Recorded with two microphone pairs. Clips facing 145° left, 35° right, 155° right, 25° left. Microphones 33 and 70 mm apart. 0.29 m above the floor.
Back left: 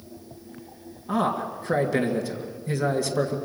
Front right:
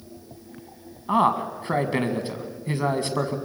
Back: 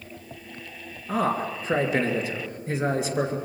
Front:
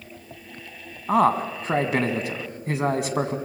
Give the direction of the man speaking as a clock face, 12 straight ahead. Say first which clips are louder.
Front right 4 dB, front 6 dB; 12 o'clock.